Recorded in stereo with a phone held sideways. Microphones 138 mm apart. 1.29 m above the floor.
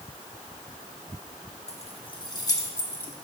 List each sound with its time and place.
1.7 s keys jangling: 50° left (ahead or behind), 1.1 m; by 3.1 s 15° left (ahead or behind), 1.9 m